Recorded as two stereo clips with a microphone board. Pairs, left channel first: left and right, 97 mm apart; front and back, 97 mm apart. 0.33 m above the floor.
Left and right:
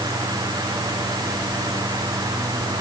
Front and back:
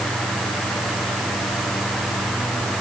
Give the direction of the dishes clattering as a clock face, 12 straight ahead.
I don't hear dishes clattering.